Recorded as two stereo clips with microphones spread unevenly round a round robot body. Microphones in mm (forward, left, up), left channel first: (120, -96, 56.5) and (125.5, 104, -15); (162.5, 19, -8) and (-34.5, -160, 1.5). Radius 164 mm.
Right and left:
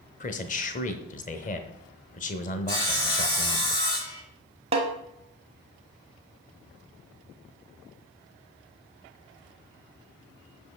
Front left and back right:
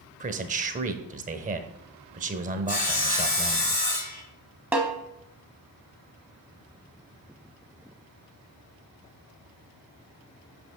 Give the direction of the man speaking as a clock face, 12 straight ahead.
5 o'clock.